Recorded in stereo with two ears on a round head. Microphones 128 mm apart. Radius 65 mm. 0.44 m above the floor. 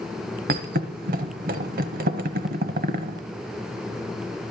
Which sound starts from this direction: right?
A thud, at 0.5 s.